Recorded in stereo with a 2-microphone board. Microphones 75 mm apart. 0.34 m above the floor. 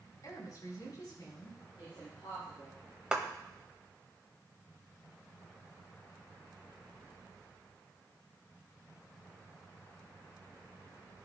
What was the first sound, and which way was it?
A woman speaking, 55° left (ahead or behind).